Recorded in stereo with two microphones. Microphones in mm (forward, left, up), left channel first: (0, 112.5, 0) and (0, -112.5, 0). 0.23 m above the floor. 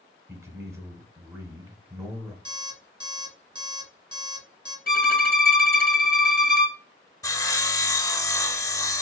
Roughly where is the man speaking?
Centre.